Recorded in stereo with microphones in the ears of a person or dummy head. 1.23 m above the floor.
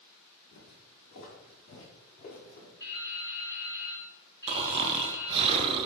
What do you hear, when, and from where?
0.5 s footsteps: 50° left (ahead or behind), 2.0 m; by 2.7 s 45° left (ahead or behind), 3.5 m
2.8 s dripping: 20° left (ahead or behind), 1.5 m
4.5 s snoring: 30° right (ahead or behind), 0.5 m